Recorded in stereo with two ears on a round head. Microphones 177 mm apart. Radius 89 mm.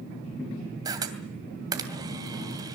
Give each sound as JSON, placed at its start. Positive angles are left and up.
{"t": 0.8, "sound": "a camera shutter", "side_deg": -20, "distance_m": 2.5}